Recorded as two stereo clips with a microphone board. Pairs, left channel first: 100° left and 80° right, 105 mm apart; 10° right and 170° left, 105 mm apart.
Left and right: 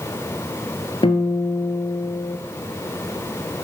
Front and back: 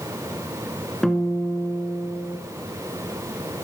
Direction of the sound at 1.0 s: 70° left.